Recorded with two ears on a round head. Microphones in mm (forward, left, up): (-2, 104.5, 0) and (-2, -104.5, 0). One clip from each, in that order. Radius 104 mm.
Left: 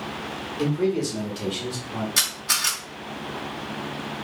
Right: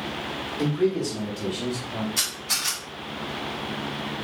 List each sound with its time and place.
0.6 s a man speaking: centre (ahead or behind), 1.3 m; by 2.1 s 45° left (ahead or behind), 1.6 m
2.2 s a camera shutter: 55° left (ahead or behind), 2 m